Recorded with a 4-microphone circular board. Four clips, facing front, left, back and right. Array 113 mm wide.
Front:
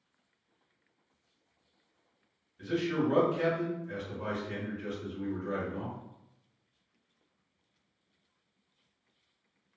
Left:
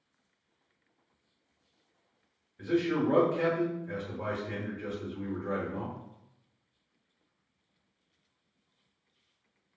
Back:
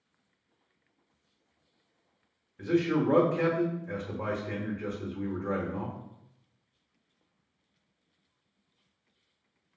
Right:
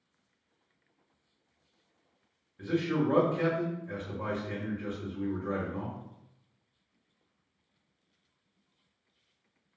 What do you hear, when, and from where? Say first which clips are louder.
2.6 s a man speaking: left 1 dB, back 4 dB; straight behind, 0.9 m